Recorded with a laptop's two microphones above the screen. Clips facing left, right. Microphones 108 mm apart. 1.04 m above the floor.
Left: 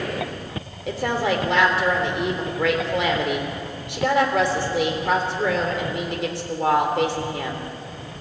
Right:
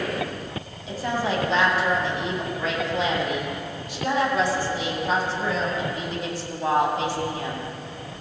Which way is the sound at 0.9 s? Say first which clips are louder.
Left 3 dB; 85° left.